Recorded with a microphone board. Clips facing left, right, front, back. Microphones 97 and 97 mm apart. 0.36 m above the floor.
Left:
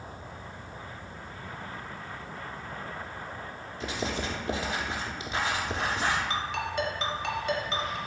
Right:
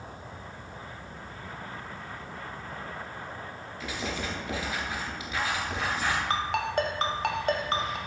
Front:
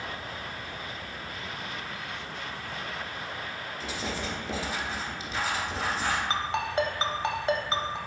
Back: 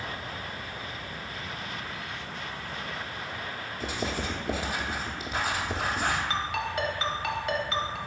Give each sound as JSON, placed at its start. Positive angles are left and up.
{"t": 3.8, "sound": "writing", "azimuth_deg": 150, "distance_m": 0.9}
{"t": 6.3, "sound": "a ringtone", "azimuth_deg": -55, "distance_m": 0.6}